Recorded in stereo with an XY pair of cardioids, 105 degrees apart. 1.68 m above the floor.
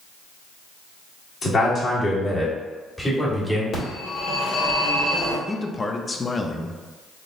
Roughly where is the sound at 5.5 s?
Ahead left.